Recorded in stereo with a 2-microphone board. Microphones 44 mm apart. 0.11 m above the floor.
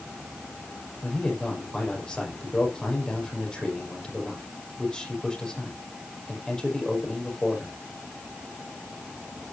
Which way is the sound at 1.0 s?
15° left (ahead or behind).